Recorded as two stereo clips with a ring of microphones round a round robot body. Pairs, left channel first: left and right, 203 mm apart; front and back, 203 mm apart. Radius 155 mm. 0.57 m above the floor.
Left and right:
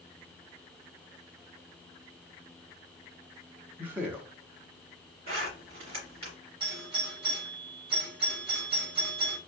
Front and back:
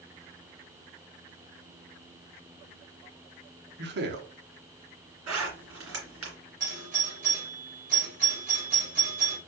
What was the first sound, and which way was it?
A man speaking, 170° right.